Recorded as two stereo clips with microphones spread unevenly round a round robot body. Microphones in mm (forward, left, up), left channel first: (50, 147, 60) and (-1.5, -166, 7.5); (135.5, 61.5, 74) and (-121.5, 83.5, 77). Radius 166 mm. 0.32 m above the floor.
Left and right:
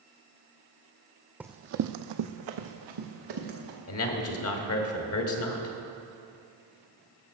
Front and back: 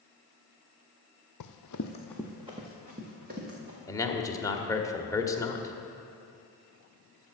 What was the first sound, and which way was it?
Running footsteps, 10° right.